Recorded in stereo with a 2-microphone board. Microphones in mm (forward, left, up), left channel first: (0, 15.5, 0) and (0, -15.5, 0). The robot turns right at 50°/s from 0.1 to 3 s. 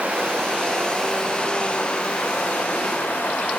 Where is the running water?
50° right, 5 m; by 3.6 s 95° left, 5 m.